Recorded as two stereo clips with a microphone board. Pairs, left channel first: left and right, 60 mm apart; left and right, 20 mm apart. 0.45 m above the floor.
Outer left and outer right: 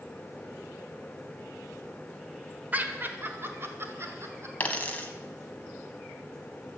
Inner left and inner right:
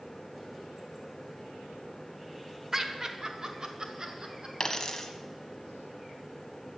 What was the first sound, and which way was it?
Laughter, 30° right (ahead or behind).